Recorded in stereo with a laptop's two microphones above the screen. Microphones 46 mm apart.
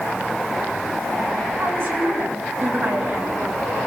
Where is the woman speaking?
60° right (ahead or behind), 6 m; by 3.8 s 40° right (ahead or behind), 4.5 m.